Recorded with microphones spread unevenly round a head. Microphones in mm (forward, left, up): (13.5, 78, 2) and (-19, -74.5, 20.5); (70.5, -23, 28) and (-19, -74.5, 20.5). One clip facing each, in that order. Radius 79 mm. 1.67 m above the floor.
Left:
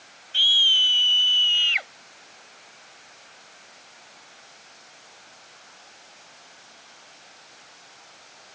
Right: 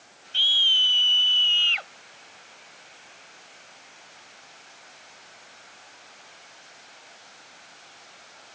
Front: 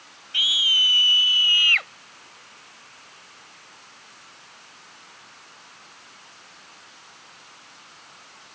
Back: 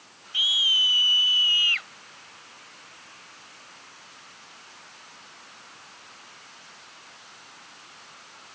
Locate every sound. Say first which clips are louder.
0.3 s a scream: left 2 dB, front 2 dB; 5° left; by 1.9 s straight ahead